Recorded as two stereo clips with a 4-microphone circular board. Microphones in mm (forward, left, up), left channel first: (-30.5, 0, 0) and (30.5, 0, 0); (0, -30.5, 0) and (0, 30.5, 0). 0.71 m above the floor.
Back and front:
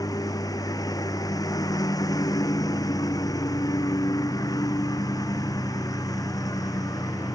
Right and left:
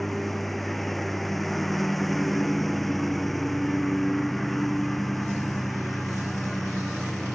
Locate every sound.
0.0 s a lawn mower: straight behind